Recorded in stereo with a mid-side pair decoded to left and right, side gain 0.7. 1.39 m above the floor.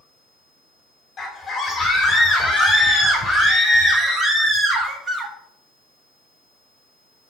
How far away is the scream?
About 4.5 m.